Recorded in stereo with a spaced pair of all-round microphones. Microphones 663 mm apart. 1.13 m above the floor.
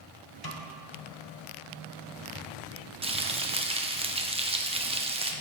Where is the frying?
10° right (ahead or behind), 0.6 m.